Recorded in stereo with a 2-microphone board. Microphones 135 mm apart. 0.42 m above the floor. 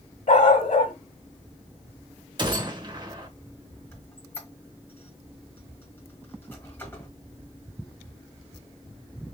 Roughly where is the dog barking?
Left.